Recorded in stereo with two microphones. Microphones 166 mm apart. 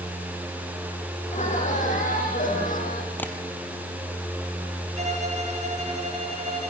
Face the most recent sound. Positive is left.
turn(degrees=-45)  # may be behind; listen again after turning